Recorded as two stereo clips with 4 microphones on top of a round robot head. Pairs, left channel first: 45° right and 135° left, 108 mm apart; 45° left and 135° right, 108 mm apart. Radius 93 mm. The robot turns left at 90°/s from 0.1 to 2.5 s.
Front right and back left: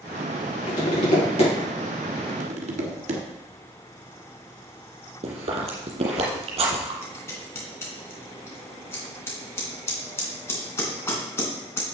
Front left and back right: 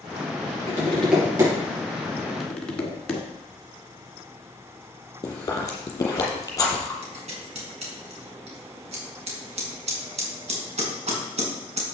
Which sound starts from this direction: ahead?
Tapping, at 0.7 s.